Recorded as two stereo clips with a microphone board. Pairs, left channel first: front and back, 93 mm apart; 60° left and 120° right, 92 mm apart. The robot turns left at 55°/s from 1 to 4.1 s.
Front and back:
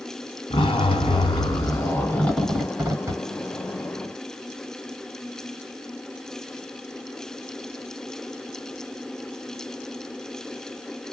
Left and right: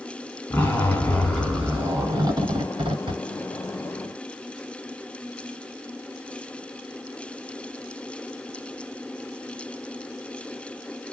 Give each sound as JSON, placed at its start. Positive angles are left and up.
{"t": 0.5, "sound": "a zipper", "azimuth_deg": -15, "distance_m": 1.7}